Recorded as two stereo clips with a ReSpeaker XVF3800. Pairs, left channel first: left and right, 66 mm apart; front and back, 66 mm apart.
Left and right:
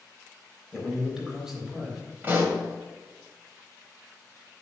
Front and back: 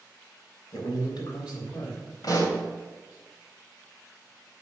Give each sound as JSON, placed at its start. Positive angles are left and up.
{"t": 0.7, "sound": "a man speaking", "azimuth_deg": 0, "distance_m": 3.5}
{"t": 2.2, "sound": "a pop", "azimuth_deg": -25, "distance_m": 2.0}